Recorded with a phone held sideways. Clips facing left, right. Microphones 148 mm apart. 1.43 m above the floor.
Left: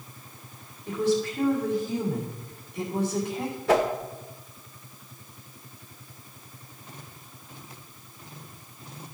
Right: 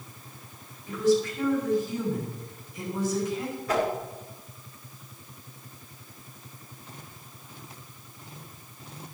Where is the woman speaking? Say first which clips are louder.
Right 2 dB; 60° left (ahead or behind), 4 m.